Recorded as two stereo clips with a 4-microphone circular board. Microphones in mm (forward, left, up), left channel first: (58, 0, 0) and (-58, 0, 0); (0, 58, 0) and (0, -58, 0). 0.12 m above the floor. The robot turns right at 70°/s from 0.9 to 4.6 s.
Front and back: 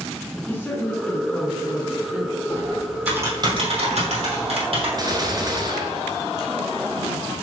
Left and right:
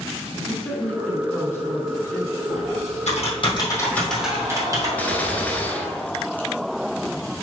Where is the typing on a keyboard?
65° left, 3 m; by 4.9 s 150° right, 3 m.